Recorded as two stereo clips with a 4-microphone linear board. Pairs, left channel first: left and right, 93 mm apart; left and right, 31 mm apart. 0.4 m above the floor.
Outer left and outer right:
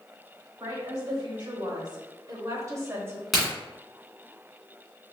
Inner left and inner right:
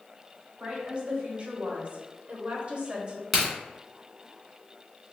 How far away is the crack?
About 1.9 m.